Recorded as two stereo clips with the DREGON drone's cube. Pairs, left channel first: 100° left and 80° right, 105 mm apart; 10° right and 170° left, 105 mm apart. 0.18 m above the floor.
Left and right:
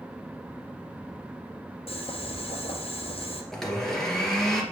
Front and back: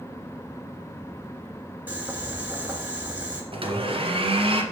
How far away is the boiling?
About 2 m.